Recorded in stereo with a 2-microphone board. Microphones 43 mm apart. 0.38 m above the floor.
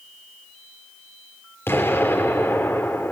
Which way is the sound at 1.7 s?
60° left (ahead or behind).